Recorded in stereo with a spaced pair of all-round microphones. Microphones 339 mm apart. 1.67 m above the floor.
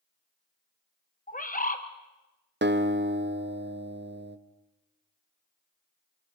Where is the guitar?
30° right (ahead or behind), 0.8 m.